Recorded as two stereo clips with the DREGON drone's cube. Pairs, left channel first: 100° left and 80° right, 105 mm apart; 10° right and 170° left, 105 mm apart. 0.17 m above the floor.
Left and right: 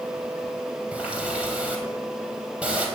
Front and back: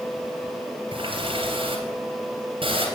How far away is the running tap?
About 3 m.